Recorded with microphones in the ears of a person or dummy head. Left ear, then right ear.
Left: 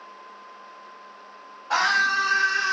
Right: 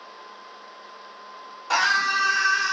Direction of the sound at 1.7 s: 75° right (ahead or behind).